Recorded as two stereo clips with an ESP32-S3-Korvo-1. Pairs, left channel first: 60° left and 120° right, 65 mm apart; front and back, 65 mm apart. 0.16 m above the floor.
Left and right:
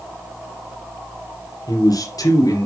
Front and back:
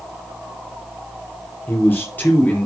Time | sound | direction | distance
1.7 | a man speaking | 55° left | 4 m